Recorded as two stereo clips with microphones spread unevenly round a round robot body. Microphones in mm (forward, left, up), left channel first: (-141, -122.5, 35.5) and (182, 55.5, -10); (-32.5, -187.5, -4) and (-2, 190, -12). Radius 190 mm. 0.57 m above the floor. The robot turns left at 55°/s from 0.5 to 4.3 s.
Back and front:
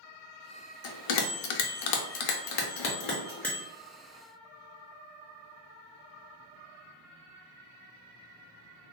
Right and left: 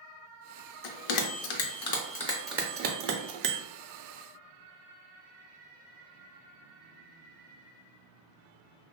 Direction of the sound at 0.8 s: 95° right.